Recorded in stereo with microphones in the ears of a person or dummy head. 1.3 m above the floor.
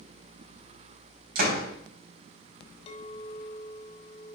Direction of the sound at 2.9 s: 30° left (ahead or behind).